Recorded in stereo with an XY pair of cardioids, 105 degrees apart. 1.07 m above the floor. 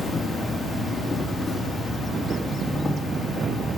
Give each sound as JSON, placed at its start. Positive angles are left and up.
{"t": 0.0, "sound": "an insect", "azimuth_deg": 20, "distance_m": 3.0}